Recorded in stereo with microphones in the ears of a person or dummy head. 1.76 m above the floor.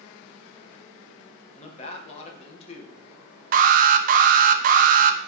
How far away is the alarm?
About 0.8 m.